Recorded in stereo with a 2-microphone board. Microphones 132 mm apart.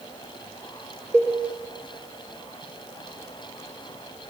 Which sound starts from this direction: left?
A cowbell, at 1.1 s.